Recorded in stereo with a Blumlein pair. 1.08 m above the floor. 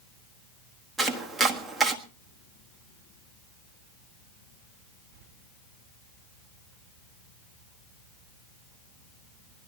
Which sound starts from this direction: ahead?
Chopping, at 1.0 s.